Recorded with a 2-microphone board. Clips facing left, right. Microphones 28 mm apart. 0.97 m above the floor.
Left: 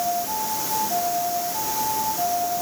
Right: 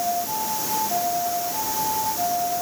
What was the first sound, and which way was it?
Only background noise.